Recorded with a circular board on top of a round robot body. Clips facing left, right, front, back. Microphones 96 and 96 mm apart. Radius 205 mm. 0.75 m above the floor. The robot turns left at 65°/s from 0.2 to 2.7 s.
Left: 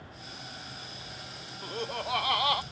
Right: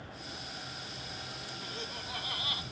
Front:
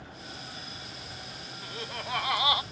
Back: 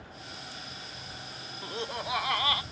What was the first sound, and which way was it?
Laughter, 130° left.